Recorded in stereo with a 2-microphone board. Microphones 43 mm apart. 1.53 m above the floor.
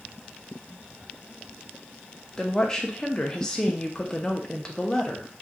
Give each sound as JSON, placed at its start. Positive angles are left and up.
{"t": 2.4, "sound": "a woman speaking", "side_deg": 15, "distance_m": 0.5}